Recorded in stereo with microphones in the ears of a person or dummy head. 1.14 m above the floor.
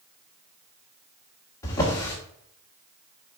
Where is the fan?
I don't hear a fan.